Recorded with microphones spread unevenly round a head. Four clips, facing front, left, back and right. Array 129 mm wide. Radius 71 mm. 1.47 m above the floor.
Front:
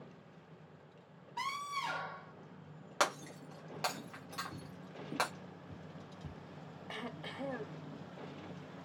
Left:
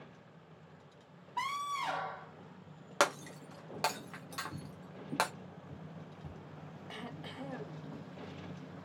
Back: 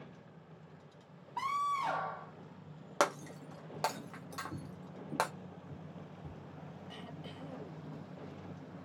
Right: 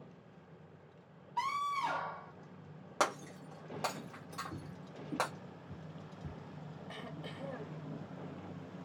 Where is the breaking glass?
165° left, 0.7 m.